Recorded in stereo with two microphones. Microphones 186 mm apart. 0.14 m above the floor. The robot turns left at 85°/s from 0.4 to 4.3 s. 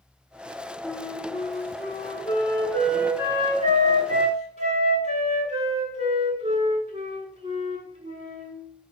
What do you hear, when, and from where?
0.8 s a flute: 175° left, 0.7 m; by 8.6 s 120° right, 0.7 m